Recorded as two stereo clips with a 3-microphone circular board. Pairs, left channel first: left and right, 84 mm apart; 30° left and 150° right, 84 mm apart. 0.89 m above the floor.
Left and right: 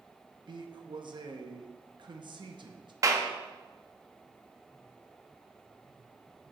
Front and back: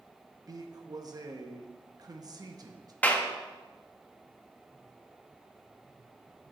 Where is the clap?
40° right, 0.9 m.